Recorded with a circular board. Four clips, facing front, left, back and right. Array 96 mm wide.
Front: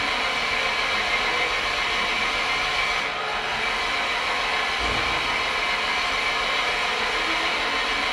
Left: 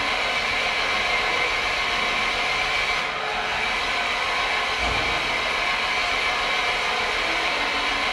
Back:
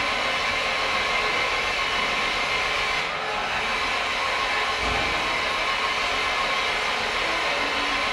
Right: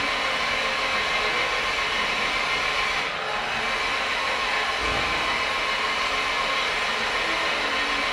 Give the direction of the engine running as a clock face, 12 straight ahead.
10 o'clock.